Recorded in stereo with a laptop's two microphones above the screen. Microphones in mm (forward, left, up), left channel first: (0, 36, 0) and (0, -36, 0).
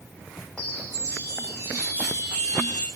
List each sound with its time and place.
0.6 s a chime: 50° right (ahead or behind), 4 m